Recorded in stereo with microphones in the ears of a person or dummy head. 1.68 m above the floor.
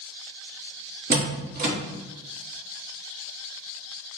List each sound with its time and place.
1.1 s a door slam: 45° right (ahead or behind), 0.9 m